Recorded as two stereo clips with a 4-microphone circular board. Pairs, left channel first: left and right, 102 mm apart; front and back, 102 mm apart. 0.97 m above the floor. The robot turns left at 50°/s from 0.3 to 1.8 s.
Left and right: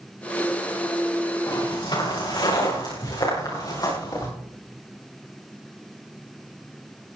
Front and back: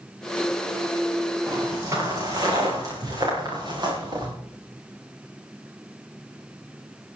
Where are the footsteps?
140° left, 6 m; by 4.3 s 135° left, 7.5 m.